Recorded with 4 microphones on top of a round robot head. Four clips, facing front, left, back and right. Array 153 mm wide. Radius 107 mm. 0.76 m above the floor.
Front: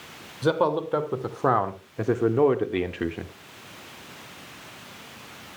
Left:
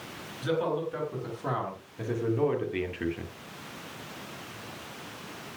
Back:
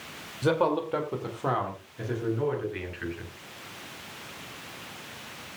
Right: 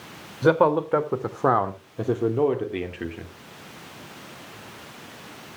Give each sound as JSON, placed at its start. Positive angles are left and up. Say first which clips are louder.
{"t": 0.4, "sound": "a man speaking", "louder": "right 10 dB, front 2 dB", "azimuth_deg": -80, "distance_m": 3.0}